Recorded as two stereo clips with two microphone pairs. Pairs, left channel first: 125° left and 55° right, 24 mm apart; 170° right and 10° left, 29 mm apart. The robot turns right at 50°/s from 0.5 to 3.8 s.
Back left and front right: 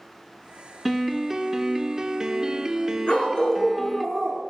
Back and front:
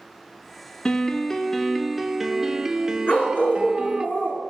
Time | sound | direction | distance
0.8 | a piano | 130° right | 0.6 m
3.1 | a dog barking | 165° left | 2.5 m